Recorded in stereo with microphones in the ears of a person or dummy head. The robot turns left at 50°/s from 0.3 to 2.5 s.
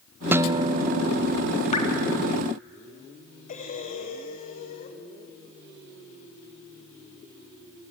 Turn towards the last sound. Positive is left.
turn(degrees=45)  # may be behind; listen again after turning